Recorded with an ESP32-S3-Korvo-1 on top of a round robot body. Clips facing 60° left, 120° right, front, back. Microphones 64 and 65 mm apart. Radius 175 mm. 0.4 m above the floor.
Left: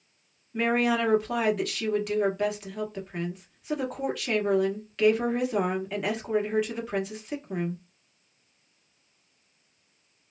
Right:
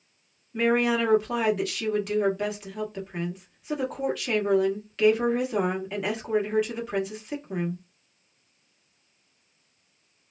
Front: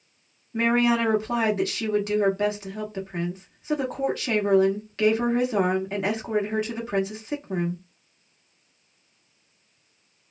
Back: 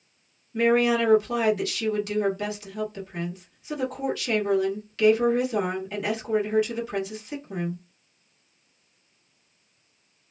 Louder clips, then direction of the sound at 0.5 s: Right 2 dB, back 1 dB; 25° right.